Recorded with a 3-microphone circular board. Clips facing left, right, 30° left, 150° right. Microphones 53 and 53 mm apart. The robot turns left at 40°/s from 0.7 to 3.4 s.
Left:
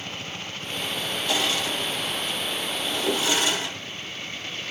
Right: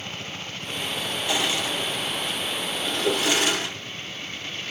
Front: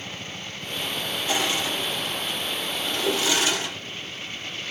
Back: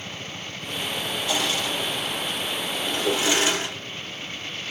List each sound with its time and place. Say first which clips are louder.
1.3 s crushing: even, front 1 dB; 15° right, 2 m; by 3.8 s 100° right, 2 m
3.0 s a whoosh: right 2 dB, back 1 dB; 55° right, 1.9 m; by 3.3 s 65° right, 1.9 m